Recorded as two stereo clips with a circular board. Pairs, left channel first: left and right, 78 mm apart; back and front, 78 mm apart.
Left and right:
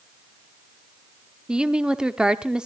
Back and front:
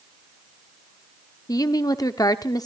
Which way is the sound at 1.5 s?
170° right.